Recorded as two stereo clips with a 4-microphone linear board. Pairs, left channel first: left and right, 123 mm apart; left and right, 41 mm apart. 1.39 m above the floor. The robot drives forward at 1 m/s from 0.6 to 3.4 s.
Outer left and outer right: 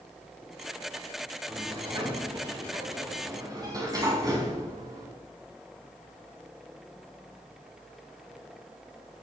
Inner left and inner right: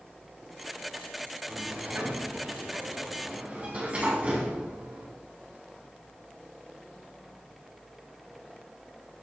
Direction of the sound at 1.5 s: 50° right (ahead or behind).